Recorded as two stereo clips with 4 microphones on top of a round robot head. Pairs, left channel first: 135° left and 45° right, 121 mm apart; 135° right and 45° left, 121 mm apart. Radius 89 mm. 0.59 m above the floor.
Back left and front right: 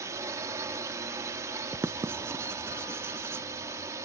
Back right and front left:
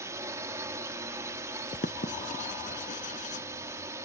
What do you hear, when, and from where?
0.0 s a drone: straight ahead
1.8 s writing: 115° right